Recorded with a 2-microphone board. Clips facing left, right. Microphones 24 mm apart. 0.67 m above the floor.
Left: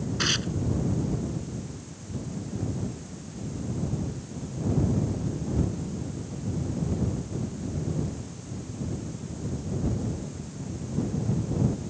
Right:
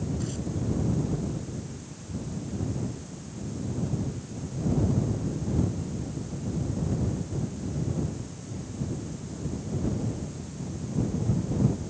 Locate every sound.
0.2 s tearing paper: 70° left (ahead or behind)